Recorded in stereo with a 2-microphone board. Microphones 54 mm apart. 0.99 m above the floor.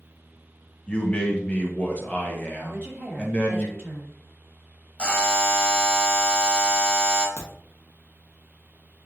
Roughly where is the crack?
Left.